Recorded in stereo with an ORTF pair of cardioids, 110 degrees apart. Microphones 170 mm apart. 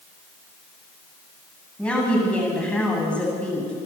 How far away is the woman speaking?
About 9 m.